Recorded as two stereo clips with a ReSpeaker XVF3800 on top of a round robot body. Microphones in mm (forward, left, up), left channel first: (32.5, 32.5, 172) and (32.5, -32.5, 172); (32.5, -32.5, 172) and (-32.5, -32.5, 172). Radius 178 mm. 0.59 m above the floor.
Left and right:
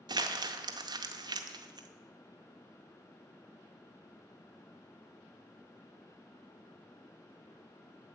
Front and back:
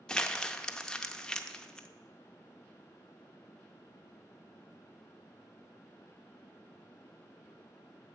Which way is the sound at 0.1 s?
80° right.